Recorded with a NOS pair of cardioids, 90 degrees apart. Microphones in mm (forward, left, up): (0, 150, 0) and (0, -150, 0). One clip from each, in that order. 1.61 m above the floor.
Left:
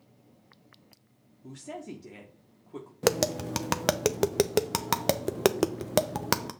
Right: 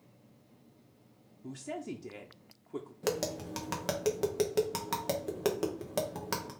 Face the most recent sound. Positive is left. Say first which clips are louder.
# left 8 dB
turn(degrees=50)